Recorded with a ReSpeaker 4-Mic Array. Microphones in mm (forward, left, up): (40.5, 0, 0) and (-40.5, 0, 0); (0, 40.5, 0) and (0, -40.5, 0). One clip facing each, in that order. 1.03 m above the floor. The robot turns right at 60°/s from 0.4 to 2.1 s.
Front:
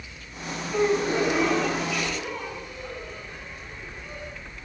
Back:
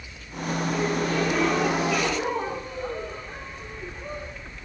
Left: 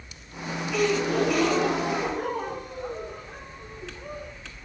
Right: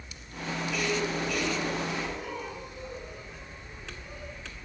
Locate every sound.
0.7 s a gasp: 45° left, 3.5 m; by 4.3 s 130° left, 3.5 m